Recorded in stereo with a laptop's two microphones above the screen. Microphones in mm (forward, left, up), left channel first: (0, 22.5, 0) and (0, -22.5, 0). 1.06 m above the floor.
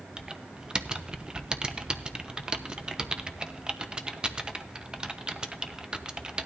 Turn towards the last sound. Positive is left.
turn(degrees=-20)  # may be behind; listen again after turning